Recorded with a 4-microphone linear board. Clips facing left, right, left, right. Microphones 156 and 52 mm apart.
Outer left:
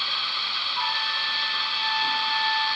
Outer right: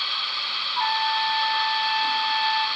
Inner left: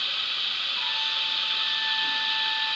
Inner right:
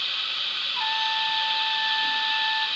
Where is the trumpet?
55° right (ahead or behind), 3 m.